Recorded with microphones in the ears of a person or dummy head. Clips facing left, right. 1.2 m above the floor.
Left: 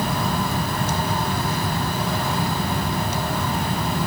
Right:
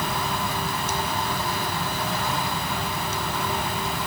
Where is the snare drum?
I don't hear a snare drum.